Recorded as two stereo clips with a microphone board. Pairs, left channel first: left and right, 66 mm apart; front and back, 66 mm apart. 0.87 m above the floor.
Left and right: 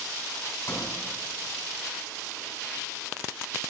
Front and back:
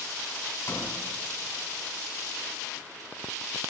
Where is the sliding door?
50° left, 3.5 m.